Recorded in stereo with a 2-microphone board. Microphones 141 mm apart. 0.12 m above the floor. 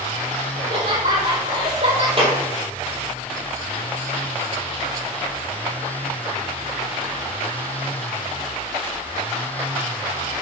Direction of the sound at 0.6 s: 65° right (ahead or behind).